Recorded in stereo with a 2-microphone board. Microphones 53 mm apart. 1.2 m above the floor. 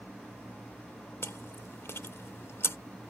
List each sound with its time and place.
1.2 s chewing: 60° left (ahead or behind)